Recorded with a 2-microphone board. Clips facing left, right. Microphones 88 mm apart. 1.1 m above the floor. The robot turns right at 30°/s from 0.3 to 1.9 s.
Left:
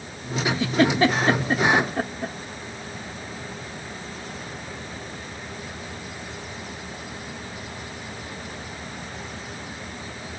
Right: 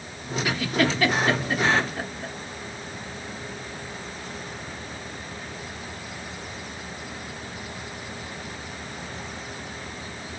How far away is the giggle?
About 0.8 m.